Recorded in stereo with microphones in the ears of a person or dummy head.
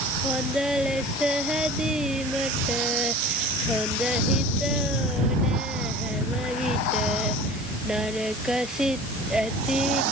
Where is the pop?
I don't hear a pop.